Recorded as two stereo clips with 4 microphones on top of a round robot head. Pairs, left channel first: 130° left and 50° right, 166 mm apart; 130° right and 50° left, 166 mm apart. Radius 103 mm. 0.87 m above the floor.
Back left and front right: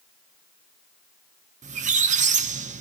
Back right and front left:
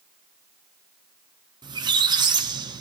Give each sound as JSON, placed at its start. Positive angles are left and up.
{"t": 1.6, "sound": "a squeak", "azimuth_deg": -15, "distance_m": 0.5}